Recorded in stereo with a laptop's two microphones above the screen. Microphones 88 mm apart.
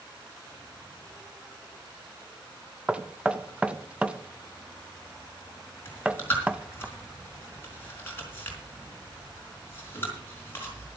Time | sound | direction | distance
2.9 | knocking | 15° right (ahead or behind) | 0.8 m
5.8 | chewing | 25° left (ahead or behind) | 4 m